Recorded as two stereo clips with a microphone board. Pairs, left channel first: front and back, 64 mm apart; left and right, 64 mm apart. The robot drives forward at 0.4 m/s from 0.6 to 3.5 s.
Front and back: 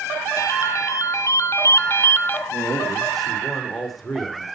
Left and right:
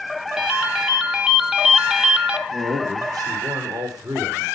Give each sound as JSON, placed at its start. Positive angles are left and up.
{"t": 0.4, "sound": "a ringtone", "azimuth_deg": -10, "distance_m": 1.6}
{"t": 2.5, "sound": "a man speaking", "azimuth_deg": -85, "distance_m": 5.0}